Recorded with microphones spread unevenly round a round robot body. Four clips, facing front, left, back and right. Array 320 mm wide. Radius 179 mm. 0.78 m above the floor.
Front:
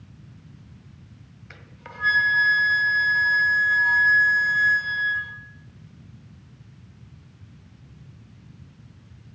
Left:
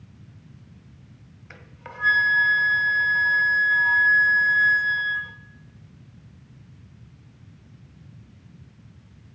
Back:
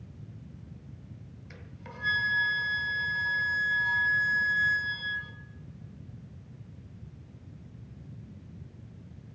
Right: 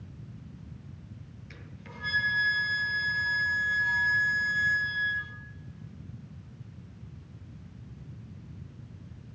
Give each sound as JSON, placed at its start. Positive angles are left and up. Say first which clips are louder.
{"t": 1.5, "sound": "a flute", "louder": "left 7 dB, front 4 dB", "azimuth_deg": 55, "distance_m": 1.9}